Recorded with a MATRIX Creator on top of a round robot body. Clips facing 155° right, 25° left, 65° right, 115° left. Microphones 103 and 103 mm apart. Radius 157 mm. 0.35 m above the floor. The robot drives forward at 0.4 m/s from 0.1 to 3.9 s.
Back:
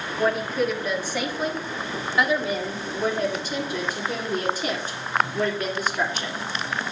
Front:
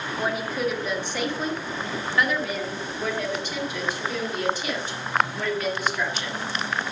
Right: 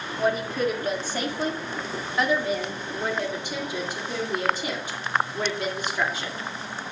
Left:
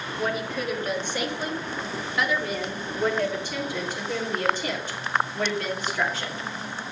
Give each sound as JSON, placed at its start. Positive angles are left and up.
{"t": 0.2, "sound": "a woman speaking", "azimuth_deg": -55, "distance_m": 1.7}